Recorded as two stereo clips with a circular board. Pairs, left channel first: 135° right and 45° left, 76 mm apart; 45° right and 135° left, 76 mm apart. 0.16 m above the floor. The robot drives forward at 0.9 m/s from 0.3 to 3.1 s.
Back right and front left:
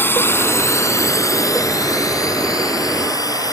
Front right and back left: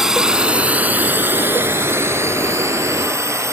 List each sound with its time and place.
0.0 s a drone: 145° right; by 3.5 s 175° right